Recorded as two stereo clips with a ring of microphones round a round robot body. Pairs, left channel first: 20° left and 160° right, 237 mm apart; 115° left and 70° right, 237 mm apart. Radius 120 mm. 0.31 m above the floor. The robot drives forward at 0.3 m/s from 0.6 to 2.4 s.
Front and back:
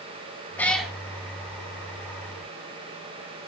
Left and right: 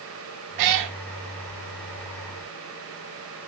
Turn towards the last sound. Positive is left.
turn(degrees=-120)